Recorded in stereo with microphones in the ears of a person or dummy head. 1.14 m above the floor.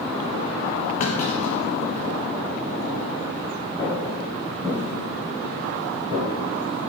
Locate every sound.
1.0 s a clunk: 35° left (ahead or behind), 1.4 m
3.8 s footsteps: 10° left (ahead or behind), 3 m; by 6.2 s 30° right (ahead or behind), 3.5 m